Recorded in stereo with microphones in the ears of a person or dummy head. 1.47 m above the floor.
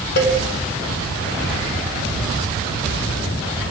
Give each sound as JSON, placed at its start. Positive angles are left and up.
{"t": 0.2, "sound": "a cowbell", "side_deg": 55, "distance_m": 1.0}